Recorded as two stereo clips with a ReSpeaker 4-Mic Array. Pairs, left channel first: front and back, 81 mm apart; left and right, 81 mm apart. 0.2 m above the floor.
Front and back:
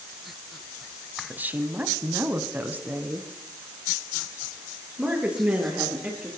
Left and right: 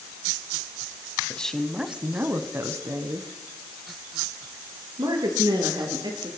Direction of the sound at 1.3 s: 145° left.